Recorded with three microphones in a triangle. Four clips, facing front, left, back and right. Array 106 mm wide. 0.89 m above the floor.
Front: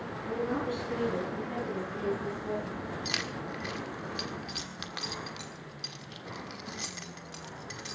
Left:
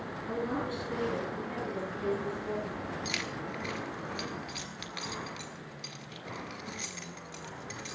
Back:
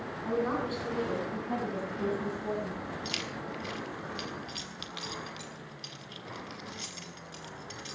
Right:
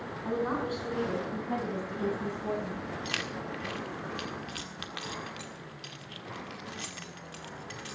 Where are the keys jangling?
40° right, 1.5 m.